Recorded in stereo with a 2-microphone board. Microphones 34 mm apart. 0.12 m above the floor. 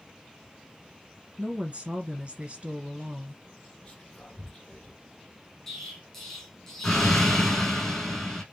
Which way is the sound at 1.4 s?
40° right (ahead or behind).